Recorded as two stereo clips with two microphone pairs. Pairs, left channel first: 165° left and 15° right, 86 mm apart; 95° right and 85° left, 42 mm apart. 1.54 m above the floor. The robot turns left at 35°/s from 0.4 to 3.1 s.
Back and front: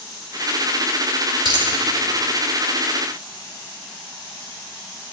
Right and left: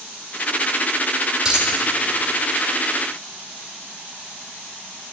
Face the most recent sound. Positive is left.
turn(degrees=-45)